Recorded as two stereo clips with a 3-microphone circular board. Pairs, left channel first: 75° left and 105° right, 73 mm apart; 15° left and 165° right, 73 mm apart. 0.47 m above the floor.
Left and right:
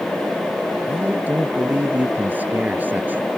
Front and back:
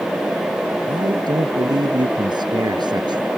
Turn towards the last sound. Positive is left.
turn(degrees=-170)